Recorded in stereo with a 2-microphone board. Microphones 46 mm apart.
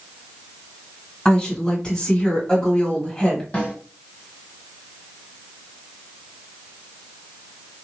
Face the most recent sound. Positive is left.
turn(degrees=30)  # may be behind; listen again after turning